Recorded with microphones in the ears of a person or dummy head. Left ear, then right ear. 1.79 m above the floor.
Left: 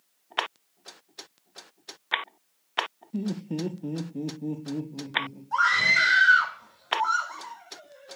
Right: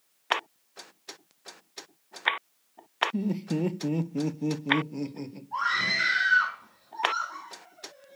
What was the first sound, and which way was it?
Laughter, 5° right (ahead or behind).